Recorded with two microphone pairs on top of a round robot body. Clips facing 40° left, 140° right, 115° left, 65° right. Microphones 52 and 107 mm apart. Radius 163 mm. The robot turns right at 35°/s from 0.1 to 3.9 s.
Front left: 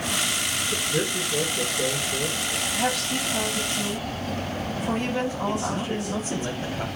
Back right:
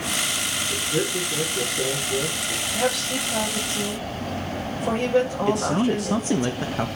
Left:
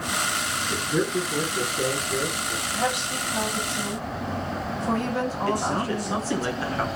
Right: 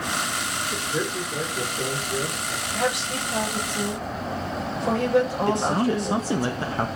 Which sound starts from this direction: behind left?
A man speaking, at 0.7 s.